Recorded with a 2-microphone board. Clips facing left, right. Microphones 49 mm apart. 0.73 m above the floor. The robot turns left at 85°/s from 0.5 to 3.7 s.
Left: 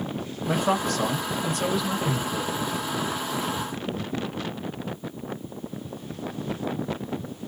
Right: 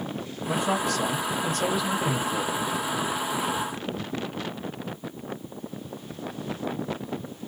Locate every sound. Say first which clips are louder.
0.5 s a man speaking: left 2 dB; 95° left, 1.5 m; by 2.5 s 80° right, 1.5 m